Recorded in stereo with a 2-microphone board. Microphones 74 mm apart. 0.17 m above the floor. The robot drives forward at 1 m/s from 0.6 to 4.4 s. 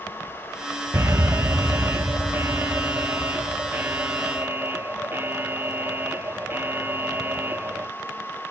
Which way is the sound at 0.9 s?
40° right (ahead or behind).